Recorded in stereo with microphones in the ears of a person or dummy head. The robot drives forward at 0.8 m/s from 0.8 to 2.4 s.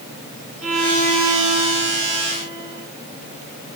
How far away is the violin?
About 2.5 m.